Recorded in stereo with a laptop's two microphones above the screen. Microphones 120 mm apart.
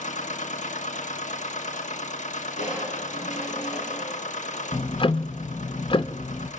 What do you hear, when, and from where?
0.0 s a machine running: 80° left, 1.2 m
2.6 s crushing: 80° left, 4.5 m
4.7 s ticking: 45° left (ahead or behind), 0.6 m